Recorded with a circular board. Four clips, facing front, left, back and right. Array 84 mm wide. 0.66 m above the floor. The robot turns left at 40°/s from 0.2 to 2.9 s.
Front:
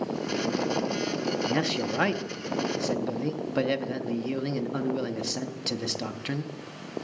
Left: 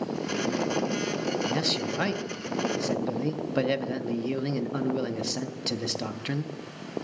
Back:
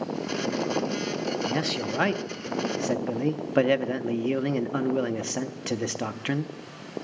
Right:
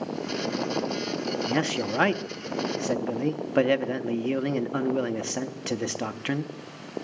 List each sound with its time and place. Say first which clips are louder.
1.5 s a man speaking: right 2 dB, front 1 dB; 80° right, 0.5 m; by 6.5 s 135° right, 0.5 m